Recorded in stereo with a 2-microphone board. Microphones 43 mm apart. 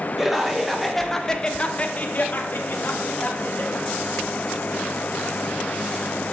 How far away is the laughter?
About 1.8 m.